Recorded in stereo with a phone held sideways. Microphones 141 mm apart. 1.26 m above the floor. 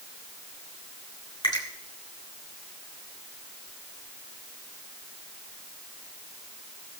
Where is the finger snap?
35° left (ahead or behind), 3.5 m.